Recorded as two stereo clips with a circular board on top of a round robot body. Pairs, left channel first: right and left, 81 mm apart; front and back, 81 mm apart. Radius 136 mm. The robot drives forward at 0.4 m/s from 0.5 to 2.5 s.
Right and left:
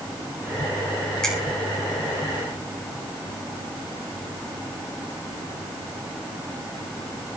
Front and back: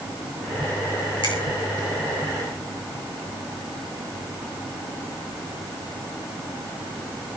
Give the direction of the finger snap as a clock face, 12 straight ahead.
12 o'clock.